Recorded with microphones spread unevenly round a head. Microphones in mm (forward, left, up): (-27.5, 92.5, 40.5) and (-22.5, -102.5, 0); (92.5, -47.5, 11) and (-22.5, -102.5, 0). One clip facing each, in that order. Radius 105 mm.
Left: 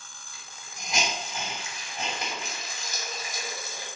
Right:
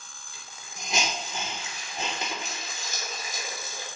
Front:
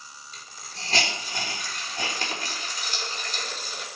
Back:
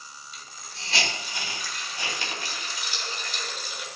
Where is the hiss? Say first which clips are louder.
Right 2 dB, front 1 dB; 20° right, 4.5 m.